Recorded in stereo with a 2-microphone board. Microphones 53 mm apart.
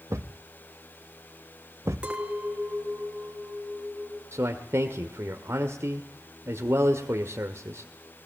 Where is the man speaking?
55° right (ahead or behind), 1.6 m.